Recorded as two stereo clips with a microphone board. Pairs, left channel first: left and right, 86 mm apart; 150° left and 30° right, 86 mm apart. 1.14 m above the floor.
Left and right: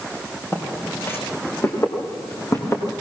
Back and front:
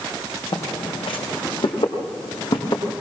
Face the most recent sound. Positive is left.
turn(degrees=145)